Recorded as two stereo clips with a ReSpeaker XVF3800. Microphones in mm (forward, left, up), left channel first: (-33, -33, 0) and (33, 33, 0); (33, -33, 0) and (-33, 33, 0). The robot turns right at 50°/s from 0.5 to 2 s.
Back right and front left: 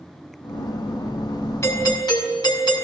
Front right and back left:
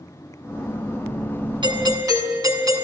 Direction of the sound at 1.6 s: 165° left.